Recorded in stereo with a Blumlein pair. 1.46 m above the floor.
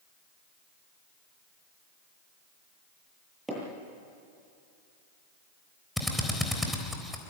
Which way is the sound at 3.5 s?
10° right.